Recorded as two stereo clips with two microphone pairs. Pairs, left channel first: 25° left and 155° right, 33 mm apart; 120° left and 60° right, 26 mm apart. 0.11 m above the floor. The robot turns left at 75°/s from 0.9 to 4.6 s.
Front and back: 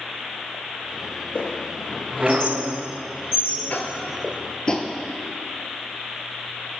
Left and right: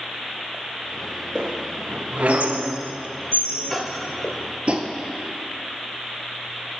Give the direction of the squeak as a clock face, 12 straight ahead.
1 o'clock.